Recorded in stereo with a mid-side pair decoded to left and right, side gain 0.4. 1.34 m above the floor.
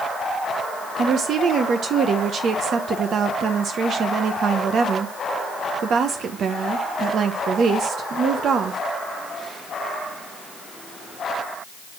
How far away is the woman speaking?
About 1.0 m.